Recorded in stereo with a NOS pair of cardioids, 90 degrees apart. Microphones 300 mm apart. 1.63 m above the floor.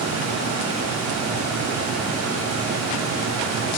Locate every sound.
0.0 s a fan: 60° right, 1.2 m